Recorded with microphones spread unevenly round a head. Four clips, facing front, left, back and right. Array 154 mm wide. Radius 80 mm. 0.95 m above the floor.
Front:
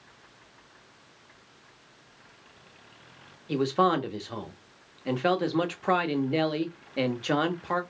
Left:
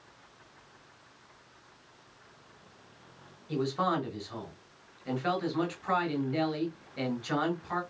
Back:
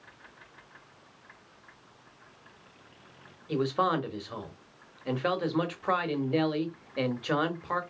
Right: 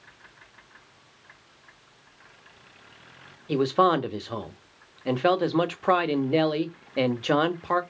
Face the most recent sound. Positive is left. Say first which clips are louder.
# right 9 dB, front 3 dB
turn(degrees=-75)